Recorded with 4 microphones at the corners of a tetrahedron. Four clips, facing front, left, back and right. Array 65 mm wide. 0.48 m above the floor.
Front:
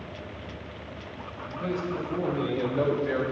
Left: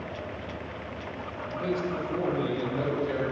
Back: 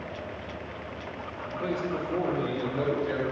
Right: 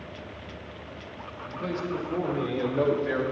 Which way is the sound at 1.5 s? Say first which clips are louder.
Left 1 dB, even; straight behind.